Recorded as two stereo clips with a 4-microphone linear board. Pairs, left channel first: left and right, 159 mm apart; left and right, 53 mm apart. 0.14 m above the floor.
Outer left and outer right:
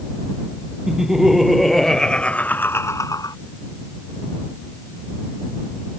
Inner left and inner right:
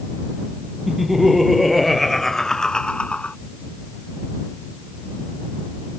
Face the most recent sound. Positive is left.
turn(degrees=25)  # may be behind; listen again after turning